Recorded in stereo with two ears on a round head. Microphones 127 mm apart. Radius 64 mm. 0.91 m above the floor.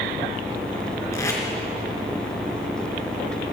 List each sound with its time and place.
1.1 s tape being pulled: 20° left (ahead or behind), 4 m